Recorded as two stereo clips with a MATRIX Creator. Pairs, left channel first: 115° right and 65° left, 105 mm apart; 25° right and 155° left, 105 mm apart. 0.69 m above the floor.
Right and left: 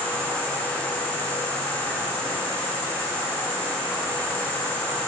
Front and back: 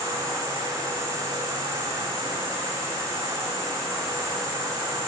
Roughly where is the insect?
Behind left.